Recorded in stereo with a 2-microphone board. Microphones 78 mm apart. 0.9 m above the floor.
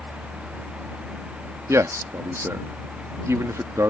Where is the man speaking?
40° right (ahead or behind).